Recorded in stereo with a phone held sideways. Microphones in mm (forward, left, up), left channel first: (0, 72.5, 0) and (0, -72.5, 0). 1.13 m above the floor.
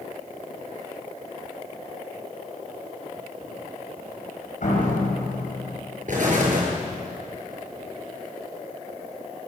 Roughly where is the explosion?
Right.